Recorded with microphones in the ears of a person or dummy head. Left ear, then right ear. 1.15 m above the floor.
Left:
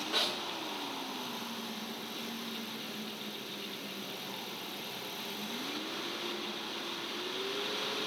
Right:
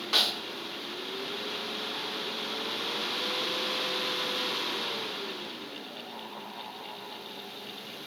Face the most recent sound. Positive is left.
turn(degrees=-35)  # may be behind; listen again after turning